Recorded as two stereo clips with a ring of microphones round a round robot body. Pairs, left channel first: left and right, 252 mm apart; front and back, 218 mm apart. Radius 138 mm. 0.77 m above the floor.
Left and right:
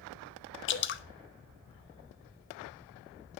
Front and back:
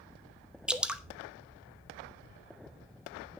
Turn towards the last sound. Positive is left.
turn(degrees=95)